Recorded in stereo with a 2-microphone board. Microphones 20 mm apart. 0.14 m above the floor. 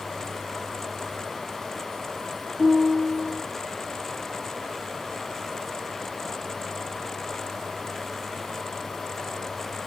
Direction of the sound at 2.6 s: Centre (ahead or behind).